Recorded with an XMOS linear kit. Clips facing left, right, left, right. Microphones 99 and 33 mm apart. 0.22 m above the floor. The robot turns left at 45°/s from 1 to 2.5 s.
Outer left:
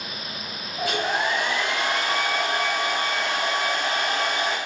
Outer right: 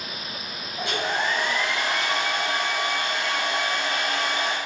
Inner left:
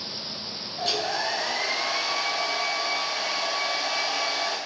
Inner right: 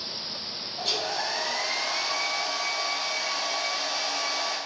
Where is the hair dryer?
175° left, 2 m; by 4.6 s 110° left, 2 m.